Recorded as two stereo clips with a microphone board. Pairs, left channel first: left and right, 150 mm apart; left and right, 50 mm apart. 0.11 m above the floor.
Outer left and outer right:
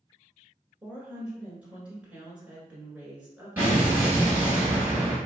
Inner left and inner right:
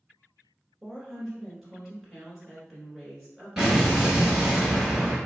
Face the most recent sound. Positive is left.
turn(degrees=-15)  # may be behind; listen again after turning